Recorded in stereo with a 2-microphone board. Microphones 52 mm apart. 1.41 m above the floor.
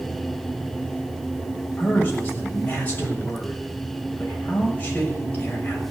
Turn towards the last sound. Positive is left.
turn(degrees=30)  # may be behind; listen again after turning